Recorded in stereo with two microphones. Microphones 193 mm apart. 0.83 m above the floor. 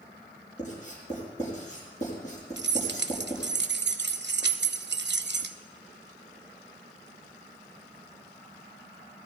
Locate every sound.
0.6 s writing: 40° left (ahead or behind), 6 m
2.6 s keys jangling: 65° right (ahead or behind), 0.7 m